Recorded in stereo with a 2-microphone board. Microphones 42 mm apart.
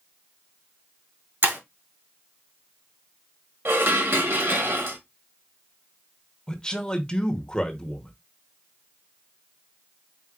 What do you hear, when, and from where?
1.4 s breaking glass: 60° right (ahead or behind), 1.6 m
3.6 s dishes clattering: 60° right (ahead or behind), 1.1 m
6.5 s a man speaking: 20° left (ahead or behind), 0.9 m